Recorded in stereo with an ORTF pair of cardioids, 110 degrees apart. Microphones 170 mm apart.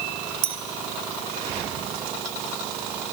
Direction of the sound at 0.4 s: 60° right.